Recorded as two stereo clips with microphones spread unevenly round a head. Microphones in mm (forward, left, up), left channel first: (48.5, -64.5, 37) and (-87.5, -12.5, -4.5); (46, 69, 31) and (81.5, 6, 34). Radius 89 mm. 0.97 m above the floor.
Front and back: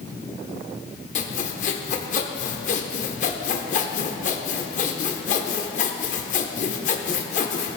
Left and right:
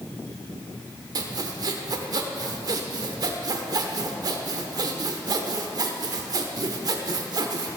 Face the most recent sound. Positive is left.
turn(degrees=-40)